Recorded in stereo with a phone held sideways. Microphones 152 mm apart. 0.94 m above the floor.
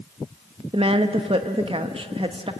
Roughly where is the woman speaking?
Right.